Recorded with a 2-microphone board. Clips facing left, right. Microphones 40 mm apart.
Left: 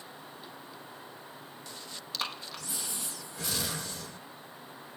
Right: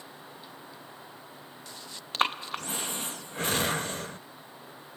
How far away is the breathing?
About 0.7 m.